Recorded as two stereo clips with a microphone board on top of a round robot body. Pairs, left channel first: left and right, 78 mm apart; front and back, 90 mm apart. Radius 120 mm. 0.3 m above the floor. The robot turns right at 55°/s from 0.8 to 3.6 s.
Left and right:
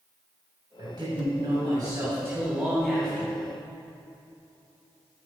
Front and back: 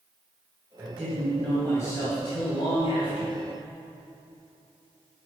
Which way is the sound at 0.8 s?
115° right.